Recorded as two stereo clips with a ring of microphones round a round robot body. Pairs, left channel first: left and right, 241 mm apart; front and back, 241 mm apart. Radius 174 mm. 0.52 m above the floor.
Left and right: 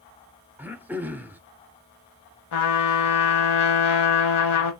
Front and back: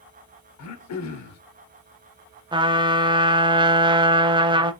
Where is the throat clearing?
5° right, 0.7 m.